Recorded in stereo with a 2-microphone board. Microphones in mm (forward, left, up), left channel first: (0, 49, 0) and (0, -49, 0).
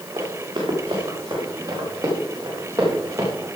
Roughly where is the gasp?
No gasp in this recording.